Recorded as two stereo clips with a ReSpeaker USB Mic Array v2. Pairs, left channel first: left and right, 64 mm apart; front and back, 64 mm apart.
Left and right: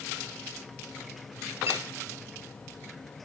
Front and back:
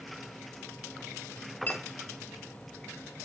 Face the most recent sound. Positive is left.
turn(degrees=-55)